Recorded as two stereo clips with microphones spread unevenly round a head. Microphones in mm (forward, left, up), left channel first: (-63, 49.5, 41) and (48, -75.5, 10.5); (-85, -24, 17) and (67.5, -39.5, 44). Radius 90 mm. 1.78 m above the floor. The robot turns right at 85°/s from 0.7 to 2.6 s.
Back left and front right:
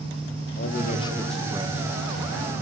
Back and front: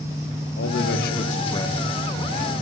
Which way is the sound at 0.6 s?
165° left.